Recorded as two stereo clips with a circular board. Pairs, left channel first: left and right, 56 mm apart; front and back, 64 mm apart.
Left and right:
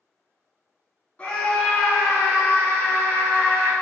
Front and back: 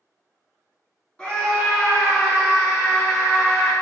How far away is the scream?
About 1.2 m.